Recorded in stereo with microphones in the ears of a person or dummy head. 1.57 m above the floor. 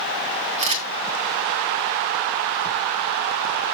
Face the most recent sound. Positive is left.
turn(degrees=-40)  # may be behind; listen again after turning